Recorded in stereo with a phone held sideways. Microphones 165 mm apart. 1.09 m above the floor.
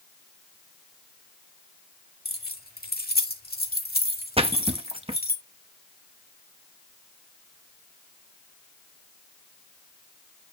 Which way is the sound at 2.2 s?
70° left (ahead or behind).